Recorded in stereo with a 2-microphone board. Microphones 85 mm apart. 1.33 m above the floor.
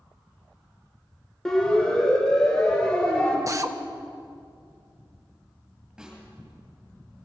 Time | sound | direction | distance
1.4 | a siren | 10° left (ahead or behind) | 6 m
3.5 | a drill | 40° right (ahead or behind) | 1.2 m
6.0 | a snare drum | 10° right (ahead or behind) | 9 m